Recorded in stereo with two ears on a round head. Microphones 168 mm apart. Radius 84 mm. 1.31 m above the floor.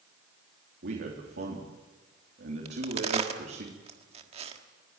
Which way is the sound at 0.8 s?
60° right (ahead or behind).